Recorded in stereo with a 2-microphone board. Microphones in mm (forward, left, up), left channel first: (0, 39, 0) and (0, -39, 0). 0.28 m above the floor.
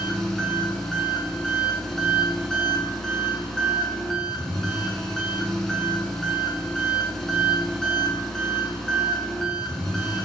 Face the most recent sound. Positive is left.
turn(degrees=5)  # may be behind; listen again after turning